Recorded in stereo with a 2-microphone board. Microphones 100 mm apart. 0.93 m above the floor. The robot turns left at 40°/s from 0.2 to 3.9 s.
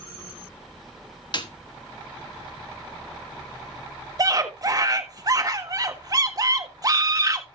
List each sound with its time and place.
1.3 s a snare drum: 50° left (ahead or behind), 1.3 m; by 1.5 s 45° left (ahead or behind), 1.3 m
4.2 s a scream: 40° right (ahead or behind), 1.5 m